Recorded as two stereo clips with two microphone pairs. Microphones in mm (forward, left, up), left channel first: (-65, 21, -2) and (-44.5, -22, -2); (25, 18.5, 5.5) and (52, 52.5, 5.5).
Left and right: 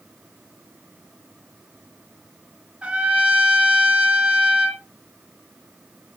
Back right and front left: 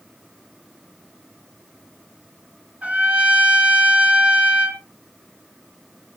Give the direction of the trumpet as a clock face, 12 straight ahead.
12 o'clock.